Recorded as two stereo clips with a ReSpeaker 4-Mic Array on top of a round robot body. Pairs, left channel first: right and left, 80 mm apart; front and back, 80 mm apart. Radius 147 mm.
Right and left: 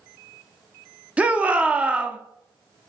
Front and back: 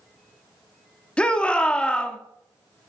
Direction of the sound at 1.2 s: 50° left.